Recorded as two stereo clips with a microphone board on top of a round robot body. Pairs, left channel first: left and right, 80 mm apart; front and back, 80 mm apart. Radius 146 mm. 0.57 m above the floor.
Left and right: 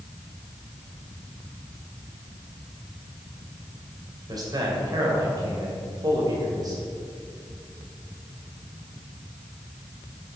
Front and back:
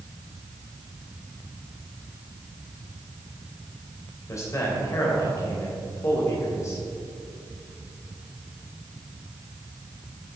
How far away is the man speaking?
About 3 m.